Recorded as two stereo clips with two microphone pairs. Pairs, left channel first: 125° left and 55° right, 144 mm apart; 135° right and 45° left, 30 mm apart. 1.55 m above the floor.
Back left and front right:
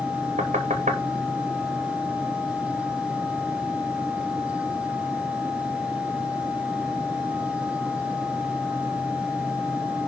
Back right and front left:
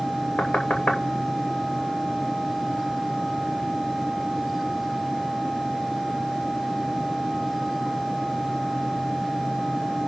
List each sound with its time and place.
0.4 s knocking: 90° right, 2 m